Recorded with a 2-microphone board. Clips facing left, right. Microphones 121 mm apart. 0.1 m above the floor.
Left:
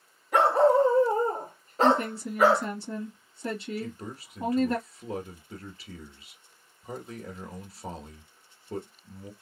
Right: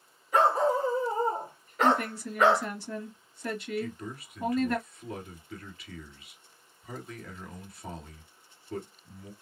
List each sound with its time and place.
0.3 s a dog barking: 65° left (ahead or behind), 1.4 m; by 2.7 s 5° right (ahead or behind), 0.8 m
1.8 s a woman speaking: 25° left (ahead or behind), 1.8 m
3.8 s a man speaking: 30° left (ahead or behind), 1.4 m